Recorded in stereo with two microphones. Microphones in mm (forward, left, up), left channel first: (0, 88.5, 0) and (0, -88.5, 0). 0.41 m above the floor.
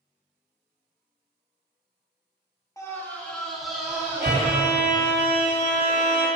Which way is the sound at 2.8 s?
20° left (ahead or behind).